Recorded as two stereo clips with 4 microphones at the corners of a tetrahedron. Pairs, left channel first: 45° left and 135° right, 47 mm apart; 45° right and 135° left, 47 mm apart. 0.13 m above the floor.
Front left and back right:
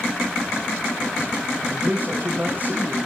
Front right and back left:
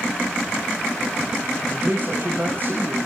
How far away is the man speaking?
About 6.5 m.